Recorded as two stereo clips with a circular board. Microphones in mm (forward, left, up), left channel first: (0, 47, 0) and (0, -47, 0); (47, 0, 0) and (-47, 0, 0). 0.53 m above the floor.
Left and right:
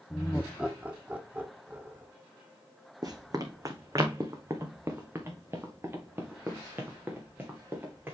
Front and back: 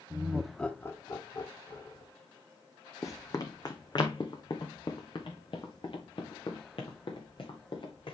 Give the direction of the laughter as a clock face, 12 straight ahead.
6 o'clock.